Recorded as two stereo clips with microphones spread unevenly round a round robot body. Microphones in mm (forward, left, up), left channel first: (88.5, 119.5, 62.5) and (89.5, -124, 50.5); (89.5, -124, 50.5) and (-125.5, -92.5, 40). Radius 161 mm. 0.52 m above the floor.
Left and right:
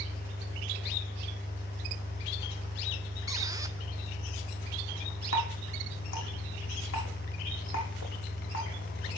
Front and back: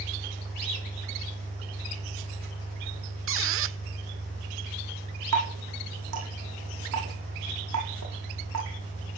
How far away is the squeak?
About 0.8 m.